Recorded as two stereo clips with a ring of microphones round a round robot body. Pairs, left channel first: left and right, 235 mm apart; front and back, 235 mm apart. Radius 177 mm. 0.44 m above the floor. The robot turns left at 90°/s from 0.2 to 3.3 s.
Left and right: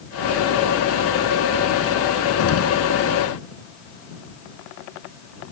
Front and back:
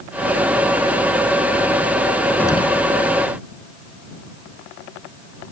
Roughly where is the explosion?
Left.